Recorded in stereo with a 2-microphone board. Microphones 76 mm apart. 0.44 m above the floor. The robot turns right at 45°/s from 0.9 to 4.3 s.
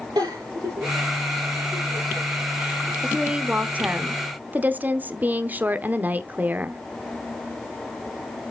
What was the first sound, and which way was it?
A giggle, 85° right.